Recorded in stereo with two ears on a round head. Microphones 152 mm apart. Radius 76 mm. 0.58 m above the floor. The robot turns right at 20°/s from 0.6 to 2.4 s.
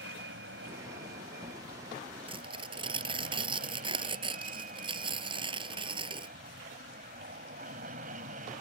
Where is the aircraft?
90° right; by 8.6 s 55° right.